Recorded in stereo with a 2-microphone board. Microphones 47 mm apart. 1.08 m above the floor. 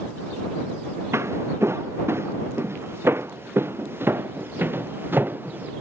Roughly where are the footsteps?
Right.